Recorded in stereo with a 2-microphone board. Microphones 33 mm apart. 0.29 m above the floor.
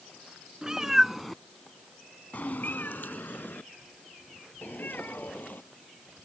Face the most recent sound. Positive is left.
turn(degrees=70)  # may be behind; listen again after turning